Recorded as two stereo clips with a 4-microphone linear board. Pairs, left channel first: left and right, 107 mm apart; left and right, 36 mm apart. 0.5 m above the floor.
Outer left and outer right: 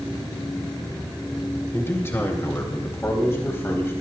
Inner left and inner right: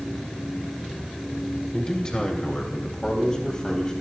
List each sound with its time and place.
1.7 s a man speaking: 25° left (ahead or behind), 2.5 m